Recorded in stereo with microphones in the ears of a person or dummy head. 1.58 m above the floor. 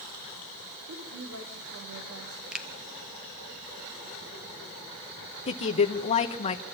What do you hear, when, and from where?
0.9 s a woman speaking: 70° right (ahead or behind), 4.5 m
2.5 s a finger snap: 5° right (ahead or behind), 1.3 m
5.5 s a woman speaking: 35° left (ahead or behind), 1.3 m